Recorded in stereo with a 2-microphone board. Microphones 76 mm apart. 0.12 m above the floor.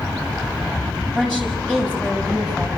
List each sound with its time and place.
1.1 s a woman speaking: 10° left (ahead or behind), 6 m